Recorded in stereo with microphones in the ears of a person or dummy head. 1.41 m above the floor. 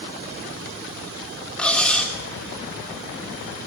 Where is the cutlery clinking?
5° left (ahead or behind), 1.1 m.